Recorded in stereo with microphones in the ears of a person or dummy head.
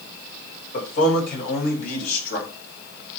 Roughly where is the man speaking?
Left.